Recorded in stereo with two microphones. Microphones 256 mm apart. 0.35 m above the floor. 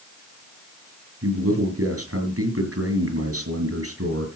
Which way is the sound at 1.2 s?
75° right (ahead or behind).